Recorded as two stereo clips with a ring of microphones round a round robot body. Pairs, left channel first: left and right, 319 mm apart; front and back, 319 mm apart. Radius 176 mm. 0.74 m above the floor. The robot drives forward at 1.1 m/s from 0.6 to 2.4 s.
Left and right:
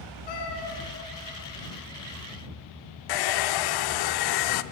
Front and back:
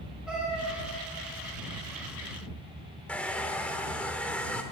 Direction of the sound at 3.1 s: 85° left.